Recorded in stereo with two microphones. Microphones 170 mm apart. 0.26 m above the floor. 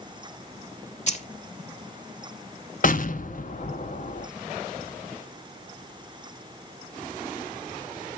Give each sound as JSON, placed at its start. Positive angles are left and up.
{"t": 1.1, "sound": "keys jangling", "side_deg": 45, "distance_m": 1.2}
{"t": 2.8, "sound": "an explosion", "side_deg": 55, "distance_m": 0.6}